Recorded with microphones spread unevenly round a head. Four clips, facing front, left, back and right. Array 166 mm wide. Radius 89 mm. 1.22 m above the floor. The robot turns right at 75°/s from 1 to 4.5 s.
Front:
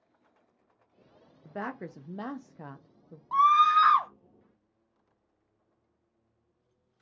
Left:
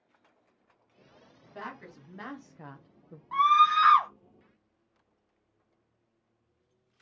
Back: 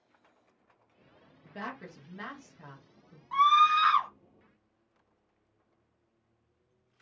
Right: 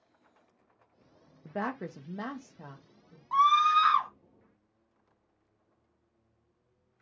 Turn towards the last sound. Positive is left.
turn(degrees=70)